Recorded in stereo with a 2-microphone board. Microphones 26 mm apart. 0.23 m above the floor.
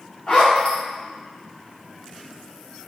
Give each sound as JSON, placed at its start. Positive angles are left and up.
{"t": 0.3, "sound": "a zipper", "side_deg": 50, "distance_m": 1.5}